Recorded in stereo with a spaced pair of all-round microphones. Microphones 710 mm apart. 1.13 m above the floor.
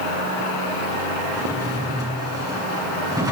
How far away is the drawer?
About 8 m.